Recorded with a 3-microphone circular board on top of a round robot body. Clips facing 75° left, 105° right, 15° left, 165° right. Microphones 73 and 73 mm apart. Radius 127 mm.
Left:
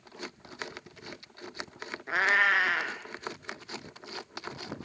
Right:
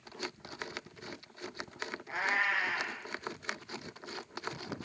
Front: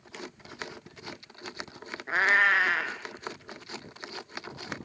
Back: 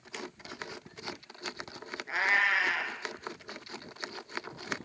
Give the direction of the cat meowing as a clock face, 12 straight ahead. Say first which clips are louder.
Left 7 dB, front 5 dB; 10 o'clock.